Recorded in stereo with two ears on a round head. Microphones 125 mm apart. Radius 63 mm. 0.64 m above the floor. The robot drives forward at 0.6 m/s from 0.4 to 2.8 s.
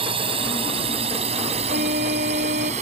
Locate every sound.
0.0 s a drone: 40° right (ahead or behind); by 2.8 s 50° right (ahead or behind)
1.7 s a flute: 65° right (ahead or behind); by 2.7 s 70° right (ahead or behind)